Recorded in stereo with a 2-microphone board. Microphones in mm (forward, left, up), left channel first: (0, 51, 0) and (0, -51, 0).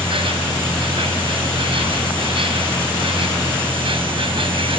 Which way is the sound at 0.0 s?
60° right (ahead or behind).